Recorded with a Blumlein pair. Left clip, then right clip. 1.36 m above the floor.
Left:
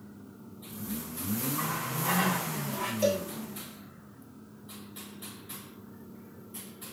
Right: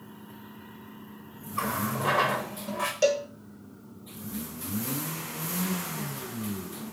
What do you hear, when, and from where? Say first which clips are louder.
1.6 s a running tap: right 7 dB; 60° right, 3.5 m
3.0 s a cowbell: right 4 dB; 25° right, 3 m